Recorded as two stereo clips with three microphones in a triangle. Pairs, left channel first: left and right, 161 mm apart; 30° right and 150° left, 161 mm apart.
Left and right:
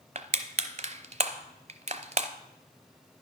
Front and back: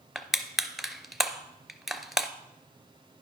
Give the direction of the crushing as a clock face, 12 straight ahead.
4 o'clock.